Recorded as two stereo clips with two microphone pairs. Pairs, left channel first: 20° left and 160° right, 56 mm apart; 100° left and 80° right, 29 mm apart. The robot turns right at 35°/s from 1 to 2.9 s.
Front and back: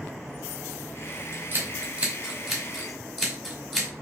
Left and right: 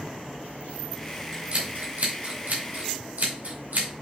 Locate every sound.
1.3 s scissors: 120° right, 1.6 m; by 3.9 s 65° right, 1.6 m